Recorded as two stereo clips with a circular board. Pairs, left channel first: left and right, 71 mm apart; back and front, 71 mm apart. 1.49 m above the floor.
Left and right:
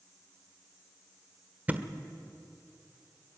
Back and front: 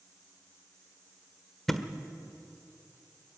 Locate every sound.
1.7 s a thud: 100° right, 1.2 m